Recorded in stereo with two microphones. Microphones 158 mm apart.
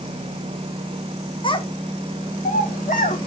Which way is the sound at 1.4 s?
30° left (ahead or behind).